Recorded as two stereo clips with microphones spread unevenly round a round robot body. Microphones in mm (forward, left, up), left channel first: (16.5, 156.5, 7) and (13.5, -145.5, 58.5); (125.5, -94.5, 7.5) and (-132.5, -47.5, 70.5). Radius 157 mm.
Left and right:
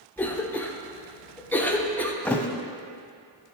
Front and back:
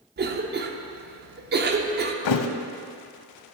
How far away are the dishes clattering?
No dishes clattering in this recording.